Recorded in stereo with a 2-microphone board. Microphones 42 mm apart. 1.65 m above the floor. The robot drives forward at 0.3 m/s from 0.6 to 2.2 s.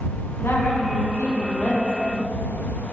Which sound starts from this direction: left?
A woman speaking, at 0.4 s.